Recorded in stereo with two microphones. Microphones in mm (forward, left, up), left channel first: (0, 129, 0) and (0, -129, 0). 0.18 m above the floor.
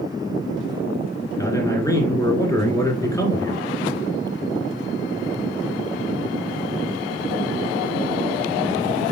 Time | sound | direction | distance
1.4 | a man speaking | 10° left (ahead or behind) | 2.5 m